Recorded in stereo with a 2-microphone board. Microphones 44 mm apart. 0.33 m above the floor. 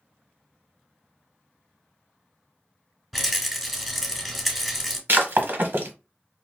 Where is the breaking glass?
50° right (ahead or behind), 1.4 m.